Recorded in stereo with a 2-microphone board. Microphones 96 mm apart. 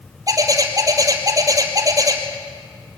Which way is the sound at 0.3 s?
40° right (ahead or behind).